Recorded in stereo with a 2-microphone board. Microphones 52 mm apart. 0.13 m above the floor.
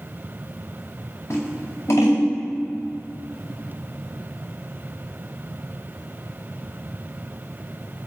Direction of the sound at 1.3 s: 55° left (ahead or behind).